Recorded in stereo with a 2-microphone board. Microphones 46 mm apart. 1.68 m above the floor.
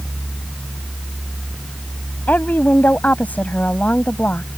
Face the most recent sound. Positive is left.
turn(degrees=30)  # may be behind; listen again after turning